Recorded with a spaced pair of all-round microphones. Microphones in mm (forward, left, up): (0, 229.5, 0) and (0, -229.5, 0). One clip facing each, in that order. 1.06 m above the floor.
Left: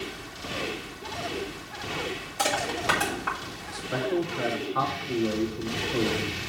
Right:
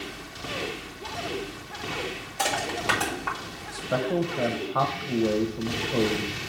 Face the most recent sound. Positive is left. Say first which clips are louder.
# right 1 dB
turn(degrees=-65)  # may be behind; listen again after turning